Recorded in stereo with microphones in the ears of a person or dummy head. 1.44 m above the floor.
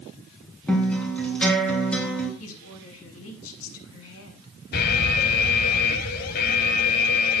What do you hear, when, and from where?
0.7 s a guitar: 5° left (ahead or behind), 3 m
2.4 s a woman speaking: 85° left, 3 m
4.7 s an alarm: 55° left (ahead or behind), 1.4 m